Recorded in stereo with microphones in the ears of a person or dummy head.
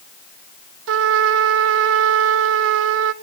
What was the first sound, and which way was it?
A trumpet, 70° right (ahead or behind).